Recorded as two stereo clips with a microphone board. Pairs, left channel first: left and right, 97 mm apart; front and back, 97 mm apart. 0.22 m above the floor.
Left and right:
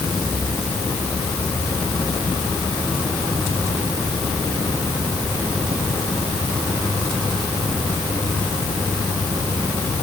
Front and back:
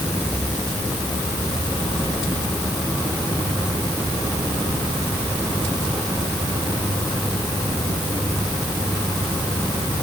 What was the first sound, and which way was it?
Only background noise.